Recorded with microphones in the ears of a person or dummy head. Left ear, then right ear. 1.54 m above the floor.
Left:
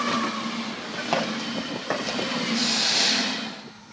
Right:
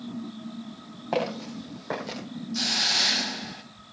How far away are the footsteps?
About 5 m.